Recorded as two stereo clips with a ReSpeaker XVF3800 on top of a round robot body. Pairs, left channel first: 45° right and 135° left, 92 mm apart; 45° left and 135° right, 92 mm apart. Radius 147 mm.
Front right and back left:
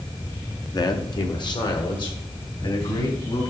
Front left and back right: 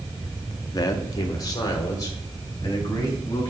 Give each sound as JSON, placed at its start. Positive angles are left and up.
{"t": 0.7, "sound": "a man speaking", "azimuth_deg": 0, "distance_m": 1.1}